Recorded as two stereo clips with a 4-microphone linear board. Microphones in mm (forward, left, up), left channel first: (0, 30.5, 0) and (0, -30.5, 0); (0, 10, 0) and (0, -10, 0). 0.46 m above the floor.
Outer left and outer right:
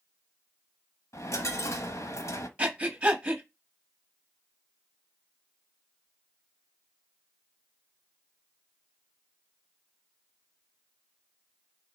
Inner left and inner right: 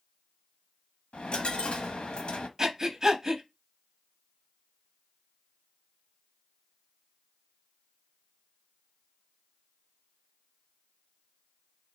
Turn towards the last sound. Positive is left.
turn(degrees=-20)  # may be behind; listen again after turning